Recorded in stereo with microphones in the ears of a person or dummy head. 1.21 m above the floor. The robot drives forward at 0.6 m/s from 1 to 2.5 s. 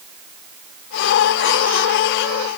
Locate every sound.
Only background noise.